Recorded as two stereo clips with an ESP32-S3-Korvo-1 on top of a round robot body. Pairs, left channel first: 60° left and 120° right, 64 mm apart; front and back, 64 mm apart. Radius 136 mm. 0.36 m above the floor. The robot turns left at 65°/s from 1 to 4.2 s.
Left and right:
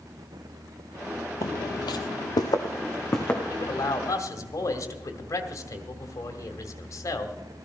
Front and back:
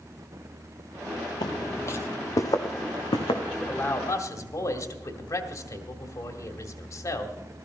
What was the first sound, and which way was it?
Footsteps, 20° left.